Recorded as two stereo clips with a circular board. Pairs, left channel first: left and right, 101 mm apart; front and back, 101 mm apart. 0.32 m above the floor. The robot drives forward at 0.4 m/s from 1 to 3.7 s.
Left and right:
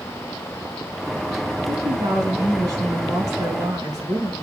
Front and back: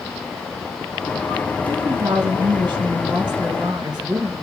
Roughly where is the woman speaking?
Behind right.